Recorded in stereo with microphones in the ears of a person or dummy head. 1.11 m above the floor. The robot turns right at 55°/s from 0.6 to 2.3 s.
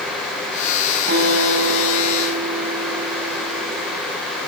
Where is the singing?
I don't hear singing.